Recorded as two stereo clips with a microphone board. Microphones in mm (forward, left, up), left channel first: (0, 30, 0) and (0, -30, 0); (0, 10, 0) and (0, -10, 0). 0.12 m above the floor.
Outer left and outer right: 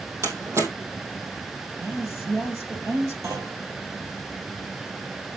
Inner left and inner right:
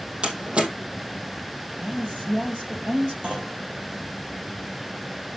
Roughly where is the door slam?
Right.